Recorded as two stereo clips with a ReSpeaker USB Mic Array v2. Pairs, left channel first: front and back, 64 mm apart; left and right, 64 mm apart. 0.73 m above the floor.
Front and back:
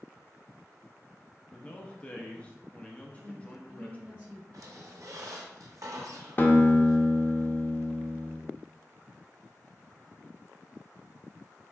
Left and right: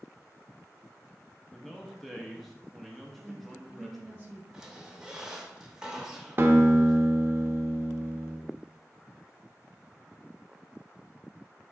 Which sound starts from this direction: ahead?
A man speaking, at 1.5 s.